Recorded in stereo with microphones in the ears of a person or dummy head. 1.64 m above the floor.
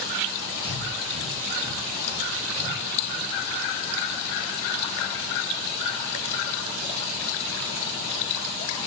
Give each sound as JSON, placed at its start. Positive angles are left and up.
{"t": 0.6, "sound": "breathing", "side_deg": -30, "distance_m": 3.5}